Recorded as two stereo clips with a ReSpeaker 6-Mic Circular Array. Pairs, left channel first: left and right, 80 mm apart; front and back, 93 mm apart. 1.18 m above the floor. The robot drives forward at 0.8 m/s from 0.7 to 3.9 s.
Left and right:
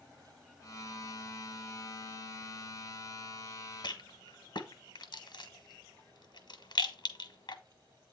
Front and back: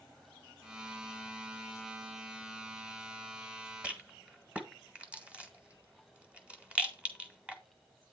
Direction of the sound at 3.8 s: 100° left.